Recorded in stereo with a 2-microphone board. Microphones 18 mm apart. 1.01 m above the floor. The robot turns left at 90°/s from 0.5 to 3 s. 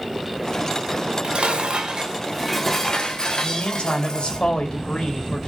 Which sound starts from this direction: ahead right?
Dishes clattering, at 0.9 s.